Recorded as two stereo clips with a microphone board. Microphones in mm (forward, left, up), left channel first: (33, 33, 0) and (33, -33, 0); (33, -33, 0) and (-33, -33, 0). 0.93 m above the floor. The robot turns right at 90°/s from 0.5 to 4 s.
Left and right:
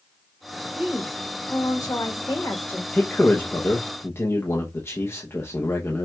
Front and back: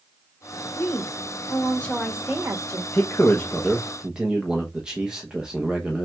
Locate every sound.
0.8 s a woman speaking: 30° right, 1.4 m; by 2.8 s 160° left, 1.4 m
2.9 s a man speaking: 10° left, 0.8 m; by 6.0 s 105° left, 0.8 m